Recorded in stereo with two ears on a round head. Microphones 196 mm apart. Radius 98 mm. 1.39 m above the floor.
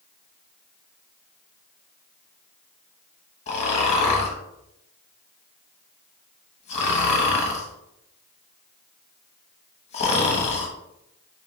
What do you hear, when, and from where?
3.5 s snoring: 30° left (ahead or behind), 0.8 m